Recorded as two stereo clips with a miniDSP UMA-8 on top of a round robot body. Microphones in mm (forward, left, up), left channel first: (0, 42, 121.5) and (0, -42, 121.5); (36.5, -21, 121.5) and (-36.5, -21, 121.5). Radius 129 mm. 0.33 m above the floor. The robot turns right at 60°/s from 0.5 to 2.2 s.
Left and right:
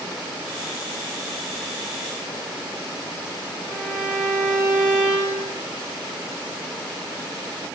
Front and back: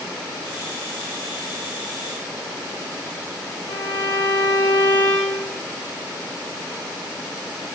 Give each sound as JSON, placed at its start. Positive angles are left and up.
{"t": 3.7, "sound": "a violin", "azimuth_deg": 45, "distance_m": 4.0}